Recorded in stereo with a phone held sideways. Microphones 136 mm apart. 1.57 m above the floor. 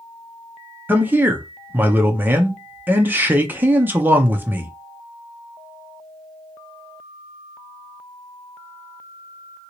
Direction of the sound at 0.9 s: 15° right (ahead or behind).